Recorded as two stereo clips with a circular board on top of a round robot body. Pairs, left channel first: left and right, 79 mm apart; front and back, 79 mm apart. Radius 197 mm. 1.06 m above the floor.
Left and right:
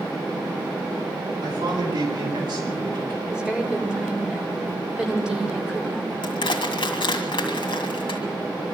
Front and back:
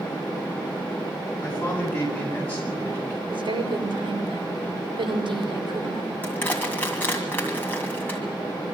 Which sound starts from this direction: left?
Crushing, at 6.2 s.